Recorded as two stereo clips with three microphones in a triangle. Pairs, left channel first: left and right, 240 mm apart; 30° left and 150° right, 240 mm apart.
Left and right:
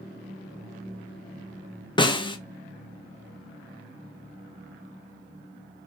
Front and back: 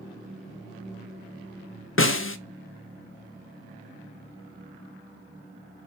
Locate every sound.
2.0 s a snare drum: 25° left, 0.5 m